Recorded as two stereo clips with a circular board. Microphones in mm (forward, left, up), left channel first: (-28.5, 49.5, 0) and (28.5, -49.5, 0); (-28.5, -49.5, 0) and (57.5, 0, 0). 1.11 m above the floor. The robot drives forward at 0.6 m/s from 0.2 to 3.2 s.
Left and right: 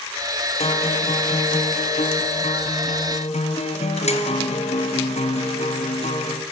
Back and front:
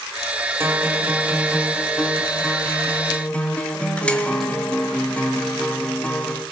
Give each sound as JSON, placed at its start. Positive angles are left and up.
{"t": 0.6, "sound": "a guitar", "azimuth_deg": 95, "distance_m": 2.0}